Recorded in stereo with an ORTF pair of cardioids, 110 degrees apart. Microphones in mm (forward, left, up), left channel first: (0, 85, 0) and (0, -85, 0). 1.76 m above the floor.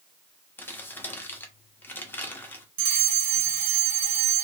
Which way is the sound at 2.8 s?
60° right.